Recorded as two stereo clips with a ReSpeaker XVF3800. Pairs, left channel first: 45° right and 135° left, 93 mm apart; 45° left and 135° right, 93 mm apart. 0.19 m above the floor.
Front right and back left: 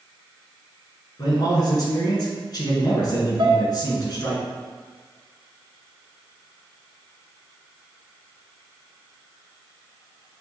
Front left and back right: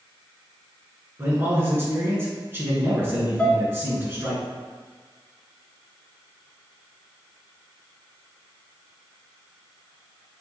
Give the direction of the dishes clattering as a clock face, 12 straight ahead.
8 o'clock.